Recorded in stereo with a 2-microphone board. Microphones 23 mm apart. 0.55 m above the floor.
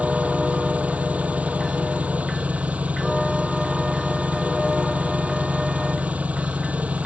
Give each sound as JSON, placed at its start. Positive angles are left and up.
{"t": 0.0, "sound": "an engine running", "side_deg": -80}